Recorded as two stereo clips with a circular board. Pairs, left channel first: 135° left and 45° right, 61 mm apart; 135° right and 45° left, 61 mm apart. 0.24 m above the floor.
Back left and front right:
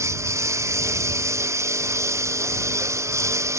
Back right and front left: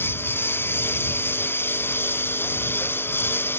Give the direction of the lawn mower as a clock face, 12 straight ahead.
3 o'clock.